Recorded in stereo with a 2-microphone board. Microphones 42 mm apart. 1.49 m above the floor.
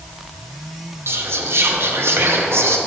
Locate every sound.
1.1 s whispering: 70° right (ahead or behind), 0.7 m